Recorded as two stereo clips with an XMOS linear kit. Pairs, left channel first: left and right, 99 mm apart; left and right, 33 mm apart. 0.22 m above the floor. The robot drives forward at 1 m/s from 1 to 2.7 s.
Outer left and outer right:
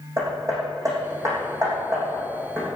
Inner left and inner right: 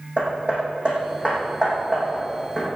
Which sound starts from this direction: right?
Hammering, at 0.2 s.